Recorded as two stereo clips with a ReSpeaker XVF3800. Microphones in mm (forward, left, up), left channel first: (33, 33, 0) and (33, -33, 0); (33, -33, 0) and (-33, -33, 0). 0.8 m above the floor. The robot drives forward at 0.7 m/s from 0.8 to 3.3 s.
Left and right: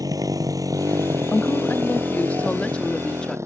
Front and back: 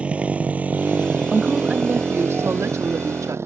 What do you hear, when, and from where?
0.0 s a motorcycle: 110° right; by 3.5 s 130° right
1.3 s a woman speaking: 100° left; by 3.4 s 160° left